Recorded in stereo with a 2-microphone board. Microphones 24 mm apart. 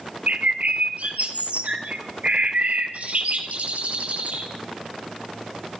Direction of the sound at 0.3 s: 65° right (ahead or behind).